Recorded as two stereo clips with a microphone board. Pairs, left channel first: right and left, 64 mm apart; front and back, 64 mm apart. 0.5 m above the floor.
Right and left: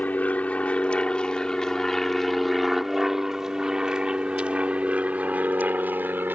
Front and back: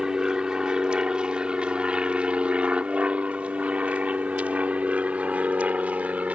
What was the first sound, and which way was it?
An aircraft, 115° right.